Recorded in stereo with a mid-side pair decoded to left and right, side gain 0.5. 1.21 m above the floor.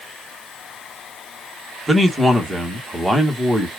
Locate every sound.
1.9 s a man speaking: 5° right, 1.7 m